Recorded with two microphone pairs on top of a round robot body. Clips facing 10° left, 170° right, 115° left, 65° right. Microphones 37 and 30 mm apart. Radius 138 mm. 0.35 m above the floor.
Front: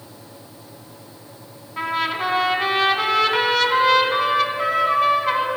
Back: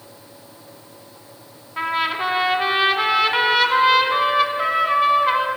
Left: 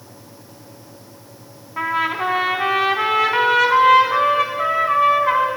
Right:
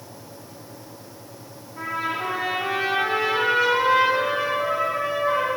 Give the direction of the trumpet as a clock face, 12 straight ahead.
8 o'clock.